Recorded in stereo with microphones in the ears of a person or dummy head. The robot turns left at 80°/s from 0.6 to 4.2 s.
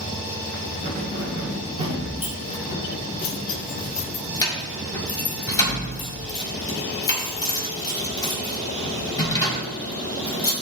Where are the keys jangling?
65° right (ahead or behind), 5 m; by 10.5 s 25° left (ahead or behind), 5 m.